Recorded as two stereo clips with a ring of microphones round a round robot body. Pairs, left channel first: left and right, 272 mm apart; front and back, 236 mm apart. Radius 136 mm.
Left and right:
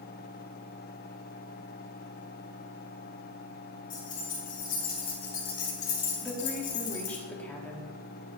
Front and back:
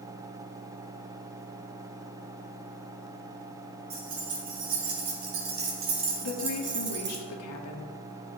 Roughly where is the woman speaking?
Ahead.